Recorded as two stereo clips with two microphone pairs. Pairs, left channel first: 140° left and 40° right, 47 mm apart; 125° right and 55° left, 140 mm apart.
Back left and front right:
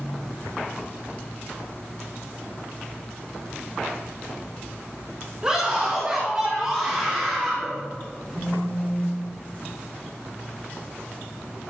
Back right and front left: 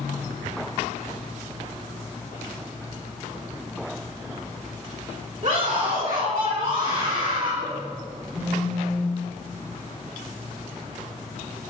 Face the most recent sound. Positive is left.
turn(degrees=95)